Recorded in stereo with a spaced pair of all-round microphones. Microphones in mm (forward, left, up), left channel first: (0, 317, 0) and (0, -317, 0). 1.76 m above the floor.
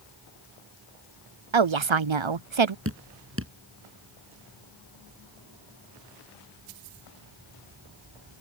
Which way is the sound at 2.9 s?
20° right (ahead or behind).